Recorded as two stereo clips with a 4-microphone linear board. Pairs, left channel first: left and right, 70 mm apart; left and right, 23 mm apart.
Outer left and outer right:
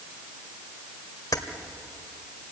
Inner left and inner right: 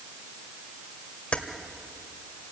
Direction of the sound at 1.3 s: 65° left (ahead or behind).